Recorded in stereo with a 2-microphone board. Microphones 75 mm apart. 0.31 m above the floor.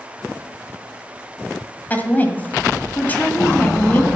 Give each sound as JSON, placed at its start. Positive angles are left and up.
{"t": 1.9, "sound": "a woman speaking", "side_deg": 25, "distance_m": 1.7}